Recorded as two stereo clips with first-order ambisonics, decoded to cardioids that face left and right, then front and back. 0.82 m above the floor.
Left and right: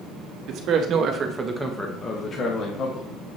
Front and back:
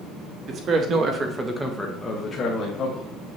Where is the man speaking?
130° right, 1.5 m; by 3.1 s 50° left, 1.7 m.